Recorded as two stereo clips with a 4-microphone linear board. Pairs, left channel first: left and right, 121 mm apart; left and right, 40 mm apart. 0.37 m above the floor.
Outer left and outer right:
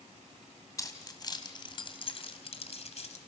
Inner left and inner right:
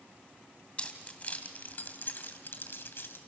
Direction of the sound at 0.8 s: 30° left (ahead or behind).